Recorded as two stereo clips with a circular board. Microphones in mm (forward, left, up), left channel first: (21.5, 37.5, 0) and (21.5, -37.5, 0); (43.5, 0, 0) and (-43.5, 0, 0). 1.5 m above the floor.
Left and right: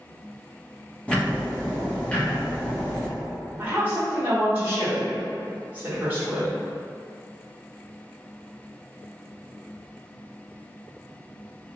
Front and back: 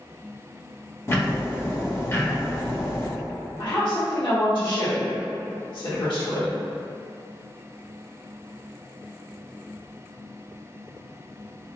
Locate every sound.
1.1 s ticking: 30° left, 0.7 m
3.6 s a woman speaking: 25° right, 1.8 m